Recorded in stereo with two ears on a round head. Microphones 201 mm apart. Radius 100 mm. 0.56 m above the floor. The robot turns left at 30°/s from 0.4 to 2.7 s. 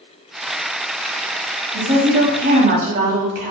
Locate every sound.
1.7 s a woman speaking: 30° right (ahead or behind), 1.1 m; by 3.5 s 35° right (ahead or behind), 1.1 m